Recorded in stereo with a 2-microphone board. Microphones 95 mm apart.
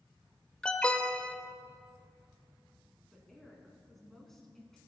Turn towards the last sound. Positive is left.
turn(degrees=5)  # may be behind; listen again after turning